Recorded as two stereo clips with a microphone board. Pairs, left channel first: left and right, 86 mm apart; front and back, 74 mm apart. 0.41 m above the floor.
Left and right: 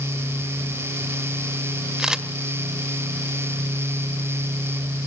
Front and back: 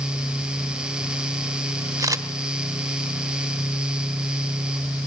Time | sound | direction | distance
2.0 | a camera shutter | 170° right | 1.3 m